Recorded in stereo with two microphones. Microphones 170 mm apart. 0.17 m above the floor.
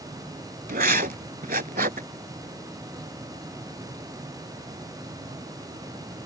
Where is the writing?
60° right (ahead or behind).